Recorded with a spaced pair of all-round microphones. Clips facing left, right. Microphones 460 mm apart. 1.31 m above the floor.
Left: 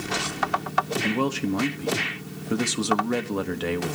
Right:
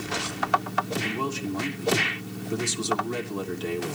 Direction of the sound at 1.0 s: 75° left (ahead or behind).